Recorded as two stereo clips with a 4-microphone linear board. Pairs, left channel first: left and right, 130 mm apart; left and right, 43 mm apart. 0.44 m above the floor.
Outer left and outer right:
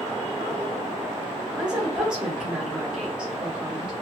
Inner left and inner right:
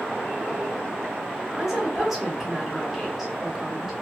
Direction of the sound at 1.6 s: 5° right (ahead or behind).